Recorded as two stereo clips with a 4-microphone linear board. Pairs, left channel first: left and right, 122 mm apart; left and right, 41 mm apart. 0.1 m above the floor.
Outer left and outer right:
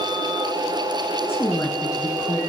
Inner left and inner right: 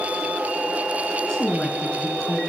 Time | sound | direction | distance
1.2 | a woman speaking | 20° left (ahead or behind) | 1.7 m